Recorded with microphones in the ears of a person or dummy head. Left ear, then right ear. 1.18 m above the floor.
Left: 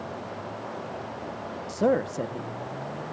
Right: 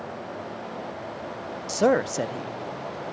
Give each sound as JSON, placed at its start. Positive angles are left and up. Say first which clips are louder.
{"t": 1.7, "sound": "a man speaking", "louder": "right 3 dB", "side_deg": -45}